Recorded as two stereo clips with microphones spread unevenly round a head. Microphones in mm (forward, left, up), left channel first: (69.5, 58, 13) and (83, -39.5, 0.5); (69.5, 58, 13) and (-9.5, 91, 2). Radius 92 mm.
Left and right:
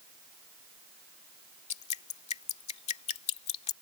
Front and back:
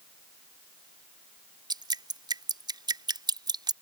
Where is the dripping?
120° left.